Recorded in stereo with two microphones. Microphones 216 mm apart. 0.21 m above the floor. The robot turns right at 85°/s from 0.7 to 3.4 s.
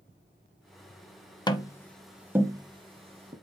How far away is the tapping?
About 0.8 m.